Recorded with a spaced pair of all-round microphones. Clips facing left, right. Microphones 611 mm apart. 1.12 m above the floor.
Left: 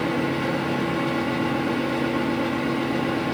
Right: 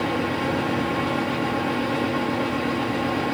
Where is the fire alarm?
I don't hear a fire alarm.